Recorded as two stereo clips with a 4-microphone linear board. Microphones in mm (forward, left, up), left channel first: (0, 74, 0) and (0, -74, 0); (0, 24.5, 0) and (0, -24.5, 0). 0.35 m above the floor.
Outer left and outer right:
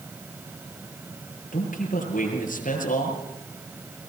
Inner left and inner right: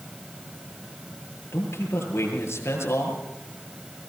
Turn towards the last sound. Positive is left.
turn(degrees=70)  # may be behind; listen again after turning